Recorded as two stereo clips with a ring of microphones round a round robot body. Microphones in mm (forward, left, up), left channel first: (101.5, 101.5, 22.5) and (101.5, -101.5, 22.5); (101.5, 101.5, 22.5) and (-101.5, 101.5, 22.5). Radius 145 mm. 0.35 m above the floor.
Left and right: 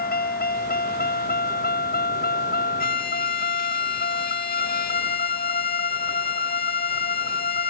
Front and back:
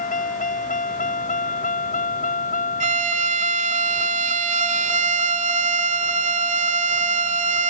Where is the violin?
135° left.